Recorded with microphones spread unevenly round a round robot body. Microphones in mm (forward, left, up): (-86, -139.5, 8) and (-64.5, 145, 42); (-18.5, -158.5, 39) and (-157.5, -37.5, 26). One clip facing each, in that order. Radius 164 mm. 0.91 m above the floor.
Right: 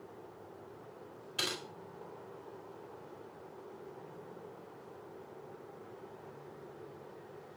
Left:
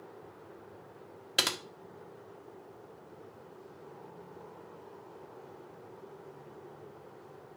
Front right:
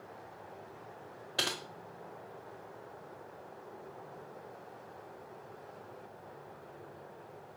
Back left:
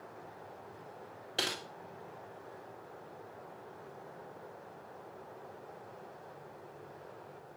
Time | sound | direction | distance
1.4 | typing on a keyboard | 65° left | 1.8 m